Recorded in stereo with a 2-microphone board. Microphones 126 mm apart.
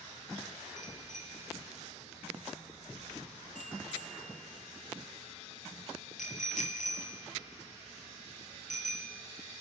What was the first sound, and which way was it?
A bicycle bell, 75° left (ahead or behind).